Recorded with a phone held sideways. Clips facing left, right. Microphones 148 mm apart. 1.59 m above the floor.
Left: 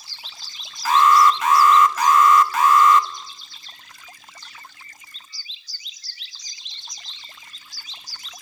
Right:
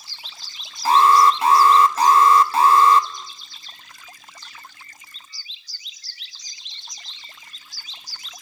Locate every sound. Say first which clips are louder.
0.8 s an alarm: right 1 dB; 30° right (ahead or behind), 1.7 m